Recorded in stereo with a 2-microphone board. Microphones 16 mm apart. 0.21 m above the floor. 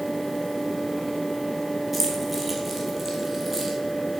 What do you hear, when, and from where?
1.9 s keys jangling: 10° right (ahead or behind), 3.5 m; by 3.8 s 20° right (ahead or behind), 4 m